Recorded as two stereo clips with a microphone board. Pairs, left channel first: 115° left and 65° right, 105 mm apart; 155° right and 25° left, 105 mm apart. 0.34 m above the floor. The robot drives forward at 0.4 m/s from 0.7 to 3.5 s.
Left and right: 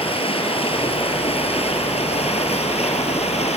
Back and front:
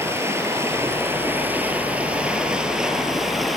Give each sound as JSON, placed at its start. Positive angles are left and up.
{"t": 0.0, "sound": "running water", "azimuth_deg": 85, "distance_m": 2.5}